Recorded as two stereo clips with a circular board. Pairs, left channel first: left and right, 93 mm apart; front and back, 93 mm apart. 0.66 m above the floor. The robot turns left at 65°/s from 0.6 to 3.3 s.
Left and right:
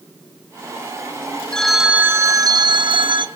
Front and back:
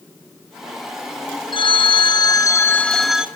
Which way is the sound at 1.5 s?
10° left.